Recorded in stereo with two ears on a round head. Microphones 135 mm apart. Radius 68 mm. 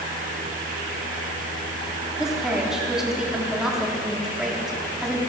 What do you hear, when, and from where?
2.2 s a woman speaking: 5° right (ahead or behind), 2.5 m